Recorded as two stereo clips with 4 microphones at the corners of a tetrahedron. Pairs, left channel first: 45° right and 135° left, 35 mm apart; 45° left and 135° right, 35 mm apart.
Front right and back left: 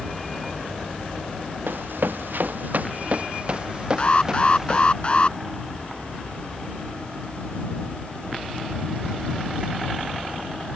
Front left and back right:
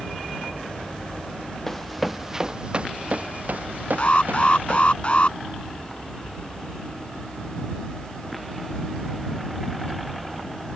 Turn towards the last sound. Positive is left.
turn(degrees=5)